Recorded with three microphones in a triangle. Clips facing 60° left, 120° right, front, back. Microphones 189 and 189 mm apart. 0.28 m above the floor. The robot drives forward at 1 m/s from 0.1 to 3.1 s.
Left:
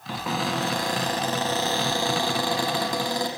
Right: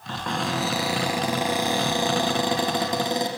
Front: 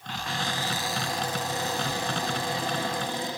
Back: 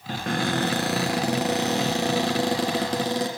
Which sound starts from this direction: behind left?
A cupboard door, at 0.1 s.